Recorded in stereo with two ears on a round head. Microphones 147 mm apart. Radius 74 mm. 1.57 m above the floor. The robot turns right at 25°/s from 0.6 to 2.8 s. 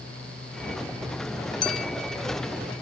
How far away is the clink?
About 0.6 m.